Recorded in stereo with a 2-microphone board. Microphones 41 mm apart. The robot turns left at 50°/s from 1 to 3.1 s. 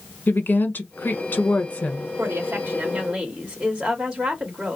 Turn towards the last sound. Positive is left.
turn(degrees=-150)